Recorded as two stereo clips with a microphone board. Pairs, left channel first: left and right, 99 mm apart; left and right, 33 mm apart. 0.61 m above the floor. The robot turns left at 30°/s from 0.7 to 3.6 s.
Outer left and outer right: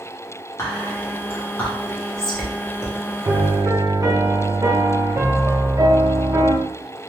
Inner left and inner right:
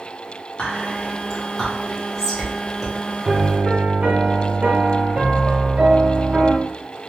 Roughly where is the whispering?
Left.